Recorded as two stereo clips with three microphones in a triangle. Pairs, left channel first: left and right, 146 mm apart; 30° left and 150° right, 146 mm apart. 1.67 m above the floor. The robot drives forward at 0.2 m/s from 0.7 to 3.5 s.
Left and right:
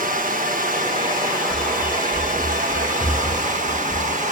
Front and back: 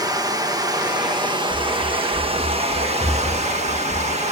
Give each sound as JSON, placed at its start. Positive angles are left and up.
{"t": 0.0, "sound": "running water", "azimuth_deg": -85, "distance_m": 1.3}
{"t": 1.5, "sound": "running footsteps", "azimuth_deg": 155, "distance_m": 9.0}